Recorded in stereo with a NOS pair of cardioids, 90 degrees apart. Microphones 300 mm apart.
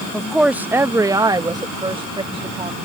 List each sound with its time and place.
0.1 s a woman speaking: 5° left; by 2.8 s 20° right